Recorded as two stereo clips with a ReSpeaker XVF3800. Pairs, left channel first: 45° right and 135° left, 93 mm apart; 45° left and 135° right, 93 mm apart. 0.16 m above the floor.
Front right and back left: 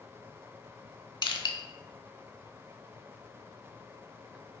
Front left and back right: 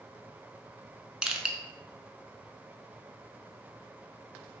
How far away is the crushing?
About 0.5 m.